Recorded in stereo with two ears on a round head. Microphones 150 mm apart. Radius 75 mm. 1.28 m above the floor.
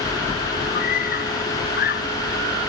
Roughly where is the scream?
Left.